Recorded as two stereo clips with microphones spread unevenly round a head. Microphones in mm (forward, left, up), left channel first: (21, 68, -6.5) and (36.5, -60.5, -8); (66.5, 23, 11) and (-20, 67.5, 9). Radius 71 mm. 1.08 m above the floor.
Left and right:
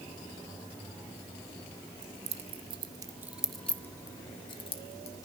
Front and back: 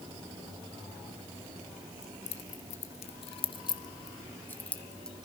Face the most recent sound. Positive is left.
turn(degrees=55)